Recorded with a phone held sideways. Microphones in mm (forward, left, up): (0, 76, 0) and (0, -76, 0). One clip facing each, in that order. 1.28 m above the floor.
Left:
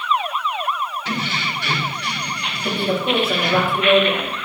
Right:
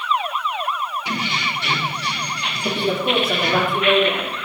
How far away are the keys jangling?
About 3 m.